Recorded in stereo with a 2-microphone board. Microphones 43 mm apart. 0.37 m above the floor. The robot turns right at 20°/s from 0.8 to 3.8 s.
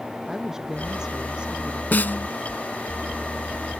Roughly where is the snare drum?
Left.